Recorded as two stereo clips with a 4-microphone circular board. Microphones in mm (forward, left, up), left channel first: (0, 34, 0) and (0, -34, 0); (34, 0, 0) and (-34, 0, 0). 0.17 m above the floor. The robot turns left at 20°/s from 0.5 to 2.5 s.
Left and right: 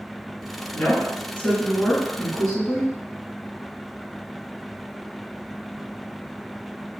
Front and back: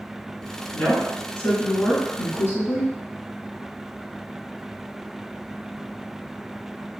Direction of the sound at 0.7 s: 40° left.